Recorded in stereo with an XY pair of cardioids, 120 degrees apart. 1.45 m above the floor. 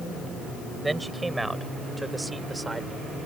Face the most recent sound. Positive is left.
turn(degrees=-10)